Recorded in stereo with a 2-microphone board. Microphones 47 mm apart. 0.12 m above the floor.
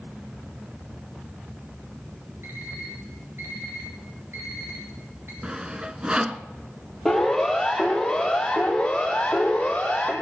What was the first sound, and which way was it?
An alarm clock, 55° right (ahead or behind).